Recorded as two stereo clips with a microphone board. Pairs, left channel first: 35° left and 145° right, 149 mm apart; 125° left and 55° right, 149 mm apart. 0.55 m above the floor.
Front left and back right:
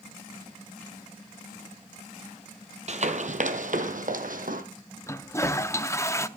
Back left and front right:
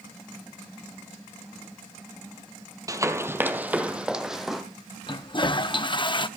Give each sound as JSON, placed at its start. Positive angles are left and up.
{"t": 2.9, "sound": "running footsteps", "azimuth_deg": -120, "distance_m": 1.1}
{"t": 5.1, "sound": "a toilet flushing", "azimuth_deg": 95, "distance_m": 0.6}